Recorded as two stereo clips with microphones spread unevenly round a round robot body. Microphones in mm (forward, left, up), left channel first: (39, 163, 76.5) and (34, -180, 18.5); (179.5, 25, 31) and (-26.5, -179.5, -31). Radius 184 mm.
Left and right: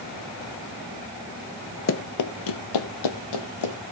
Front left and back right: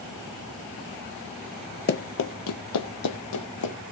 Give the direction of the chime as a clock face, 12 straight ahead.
I don't hear a chime.